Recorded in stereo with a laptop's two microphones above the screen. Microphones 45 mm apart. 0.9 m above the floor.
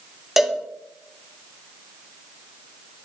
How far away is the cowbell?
About 1.1 m.